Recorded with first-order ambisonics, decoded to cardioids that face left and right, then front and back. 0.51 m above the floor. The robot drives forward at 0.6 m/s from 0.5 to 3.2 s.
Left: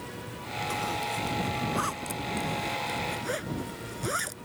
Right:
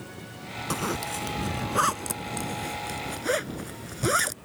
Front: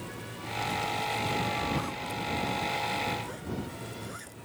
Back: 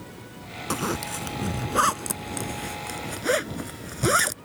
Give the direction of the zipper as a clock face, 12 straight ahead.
5 o'clock.